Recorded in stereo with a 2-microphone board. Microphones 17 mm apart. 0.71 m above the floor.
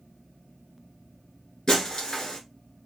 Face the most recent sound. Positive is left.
turn(degrees=45)  # may be behind; listen again after turning